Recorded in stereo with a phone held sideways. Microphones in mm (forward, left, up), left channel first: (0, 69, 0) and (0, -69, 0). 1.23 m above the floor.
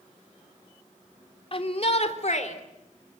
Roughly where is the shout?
Left.